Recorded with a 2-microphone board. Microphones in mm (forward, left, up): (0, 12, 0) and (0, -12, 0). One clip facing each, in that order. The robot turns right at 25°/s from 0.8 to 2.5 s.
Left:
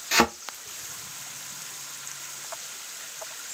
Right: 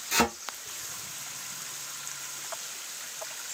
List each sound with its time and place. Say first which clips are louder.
0.1 s a thud: left 4 dB; 35° left (ahead or behind), 0.5 m